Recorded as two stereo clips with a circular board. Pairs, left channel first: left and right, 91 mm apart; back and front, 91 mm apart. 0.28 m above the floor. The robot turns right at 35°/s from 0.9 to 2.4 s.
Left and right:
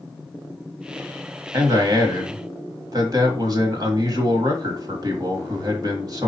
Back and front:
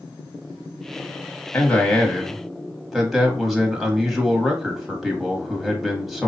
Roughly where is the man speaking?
Behind right.